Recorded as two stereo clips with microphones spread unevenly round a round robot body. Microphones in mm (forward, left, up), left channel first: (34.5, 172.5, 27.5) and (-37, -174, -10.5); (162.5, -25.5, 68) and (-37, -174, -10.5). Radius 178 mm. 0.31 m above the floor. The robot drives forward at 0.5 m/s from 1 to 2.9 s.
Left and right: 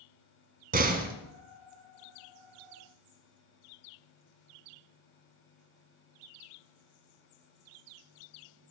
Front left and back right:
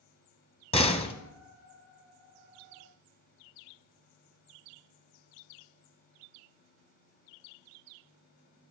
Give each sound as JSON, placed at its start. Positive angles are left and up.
{"t": 0.7, "sound": "a door slam", "azimuth_deg": -35, "distance_m": 2.0}